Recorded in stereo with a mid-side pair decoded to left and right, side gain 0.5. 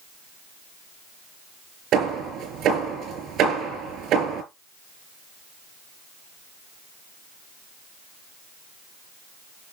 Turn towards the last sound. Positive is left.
turn(degrees=-65)